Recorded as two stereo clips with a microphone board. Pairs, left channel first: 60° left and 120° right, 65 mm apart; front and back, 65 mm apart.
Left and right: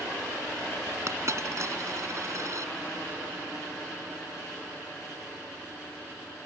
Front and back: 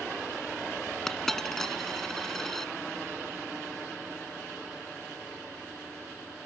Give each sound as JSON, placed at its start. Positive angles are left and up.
{"t": 1.1, "sound": "a dropped coin", "azimuth_deg": -85}